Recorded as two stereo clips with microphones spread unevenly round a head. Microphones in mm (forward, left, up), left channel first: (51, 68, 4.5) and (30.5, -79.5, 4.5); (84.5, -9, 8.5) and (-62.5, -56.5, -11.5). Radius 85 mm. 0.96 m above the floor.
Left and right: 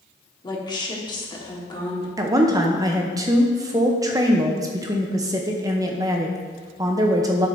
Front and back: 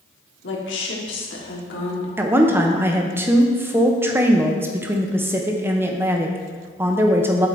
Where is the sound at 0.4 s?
20° left, 1.8 m.